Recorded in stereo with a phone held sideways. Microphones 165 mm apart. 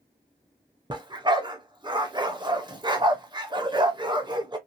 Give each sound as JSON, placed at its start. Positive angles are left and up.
{"t": 0.9, "sound": "a dog barking", "side_deg": -25, "distance_m": 0.6}